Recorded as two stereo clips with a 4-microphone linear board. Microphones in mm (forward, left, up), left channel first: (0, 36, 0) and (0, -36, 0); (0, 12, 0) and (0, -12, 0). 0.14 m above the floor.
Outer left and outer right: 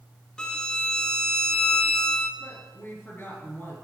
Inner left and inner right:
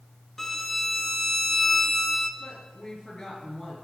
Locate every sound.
0.4 s a violin: 10° left (ahead or behind), 0.6 m
2.4 s a woman speaking: 30° left (ahead or behind), 2.5 m